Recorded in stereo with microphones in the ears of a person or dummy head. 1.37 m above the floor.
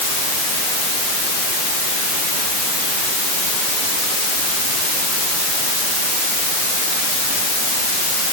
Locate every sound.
Only background noise.